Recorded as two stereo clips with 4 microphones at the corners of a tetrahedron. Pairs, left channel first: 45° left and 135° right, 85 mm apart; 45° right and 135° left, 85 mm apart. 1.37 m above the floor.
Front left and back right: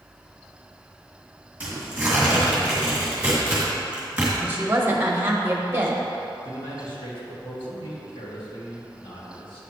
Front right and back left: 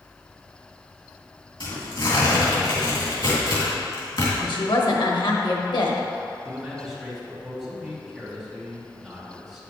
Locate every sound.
1.6 s tearing paper: 60° right, 2.5 m
4.4 s a woman speaking: 70° right, 1.2 m
6.5 s a man speaking: 45° left, 2 m